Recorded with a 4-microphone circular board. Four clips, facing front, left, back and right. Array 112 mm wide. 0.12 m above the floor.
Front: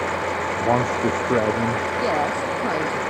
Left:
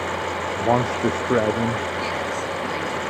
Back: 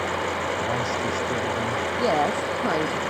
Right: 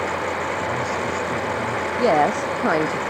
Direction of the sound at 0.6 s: 55° left.